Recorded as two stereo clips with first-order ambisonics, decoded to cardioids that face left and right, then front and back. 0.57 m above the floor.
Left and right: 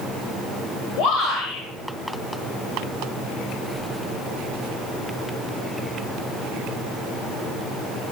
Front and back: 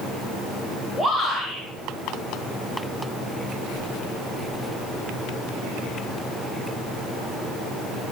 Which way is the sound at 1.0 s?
80° left.